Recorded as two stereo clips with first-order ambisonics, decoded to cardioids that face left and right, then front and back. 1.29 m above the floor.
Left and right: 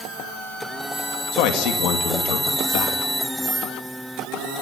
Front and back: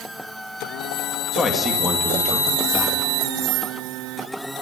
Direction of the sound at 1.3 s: 80° left.